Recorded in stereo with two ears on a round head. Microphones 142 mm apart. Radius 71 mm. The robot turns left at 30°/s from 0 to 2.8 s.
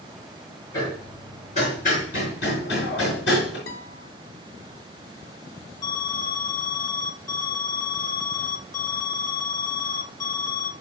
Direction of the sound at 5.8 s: 25° left (ahead or behind).